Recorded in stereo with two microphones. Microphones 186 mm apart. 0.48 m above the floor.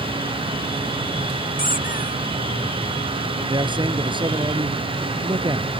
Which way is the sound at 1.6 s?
50° left (ahead or behind).